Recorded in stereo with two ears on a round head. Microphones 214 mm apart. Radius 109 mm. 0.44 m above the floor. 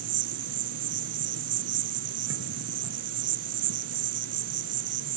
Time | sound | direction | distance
0.0 | an insect | 75° right (ahead or behind) | ?